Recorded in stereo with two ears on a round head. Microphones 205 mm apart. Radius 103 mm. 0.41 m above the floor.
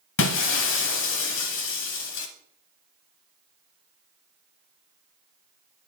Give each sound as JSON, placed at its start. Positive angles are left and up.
{"t": 0.2, "sound": "breaking glass", "side_deg": 55, "distance_m": 1.0}